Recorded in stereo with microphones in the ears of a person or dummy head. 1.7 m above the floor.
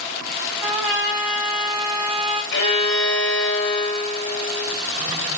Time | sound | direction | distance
0.6 | a trumpet | 5° right (ahead or behind) | 1.9 m
2.5 | a violin | 60° left (ahead or behind) | 2.5 m